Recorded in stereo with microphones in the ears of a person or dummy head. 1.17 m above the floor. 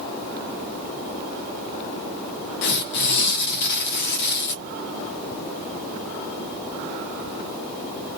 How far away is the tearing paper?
About 0.6 m.